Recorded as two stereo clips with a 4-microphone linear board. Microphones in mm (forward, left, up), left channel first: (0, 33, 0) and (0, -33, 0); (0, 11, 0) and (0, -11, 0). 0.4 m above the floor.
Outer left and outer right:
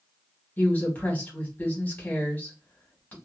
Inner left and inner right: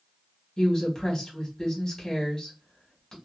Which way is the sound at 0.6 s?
25° left (ahead or behind).